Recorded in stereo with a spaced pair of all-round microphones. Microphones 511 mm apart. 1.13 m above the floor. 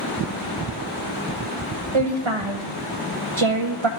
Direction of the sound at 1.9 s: 65° right (ahead or behind).